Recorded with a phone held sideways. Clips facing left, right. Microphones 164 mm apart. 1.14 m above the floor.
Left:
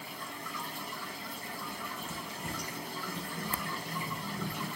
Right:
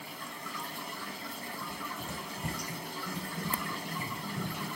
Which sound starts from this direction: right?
Running footsteps, at 1.6 s.